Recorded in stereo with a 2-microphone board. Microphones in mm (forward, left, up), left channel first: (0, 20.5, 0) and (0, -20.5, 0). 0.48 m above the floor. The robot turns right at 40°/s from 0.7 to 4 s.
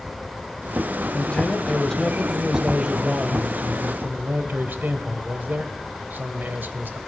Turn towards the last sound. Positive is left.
turn(degrees=-105)